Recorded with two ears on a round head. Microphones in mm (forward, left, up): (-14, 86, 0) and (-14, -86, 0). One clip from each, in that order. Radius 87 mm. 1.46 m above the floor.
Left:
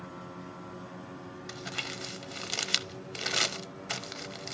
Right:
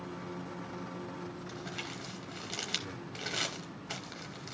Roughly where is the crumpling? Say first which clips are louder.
Left 8 dB; left.